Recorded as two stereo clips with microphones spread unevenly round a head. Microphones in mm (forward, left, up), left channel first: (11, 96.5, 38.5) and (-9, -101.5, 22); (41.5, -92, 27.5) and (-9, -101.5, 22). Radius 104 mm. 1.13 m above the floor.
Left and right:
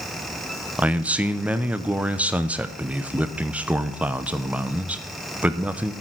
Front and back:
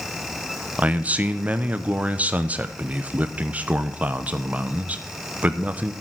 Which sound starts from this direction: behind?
A man speaking, at 0.8 s.